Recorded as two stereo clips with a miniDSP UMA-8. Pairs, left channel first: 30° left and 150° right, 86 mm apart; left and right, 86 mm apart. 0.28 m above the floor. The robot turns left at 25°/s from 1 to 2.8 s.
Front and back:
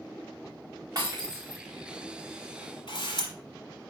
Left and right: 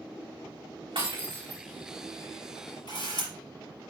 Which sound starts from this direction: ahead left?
A camera shutter, at 2.9 s.